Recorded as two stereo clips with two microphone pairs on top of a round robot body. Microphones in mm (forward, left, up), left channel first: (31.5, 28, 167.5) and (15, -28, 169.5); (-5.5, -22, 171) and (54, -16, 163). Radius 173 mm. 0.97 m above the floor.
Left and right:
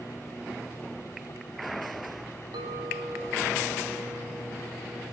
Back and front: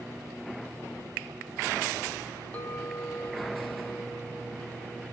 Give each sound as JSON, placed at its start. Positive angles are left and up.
{"t": 2.5, "sound": "a clink", "azimuth_deg": -110, "distance_m": 0.9}